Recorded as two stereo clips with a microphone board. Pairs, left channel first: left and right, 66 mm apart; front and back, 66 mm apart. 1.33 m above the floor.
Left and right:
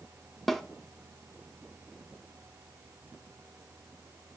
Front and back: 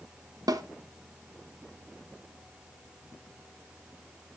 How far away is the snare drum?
About 0.7 m.